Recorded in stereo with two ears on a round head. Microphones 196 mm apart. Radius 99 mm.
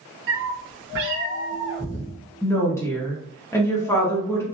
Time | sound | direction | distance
0.3 | a cat meowing | 65° right (ahead or behind) | 0.7 m
2.4 | a woman speaking | 10° left (ahead or behind) | 0.8 m